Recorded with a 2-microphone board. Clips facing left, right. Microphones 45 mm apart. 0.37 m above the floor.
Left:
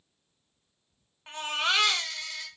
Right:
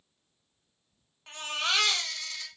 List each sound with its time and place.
1.3 s a baby crying: 20° left (ahead or behind), 0.7 m